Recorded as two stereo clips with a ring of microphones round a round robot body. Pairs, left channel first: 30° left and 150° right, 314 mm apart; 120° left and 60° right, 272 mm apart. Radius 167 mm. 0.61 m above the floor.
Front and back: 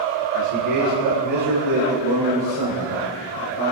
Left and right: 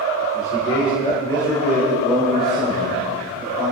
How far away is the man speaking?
About 2.5 m.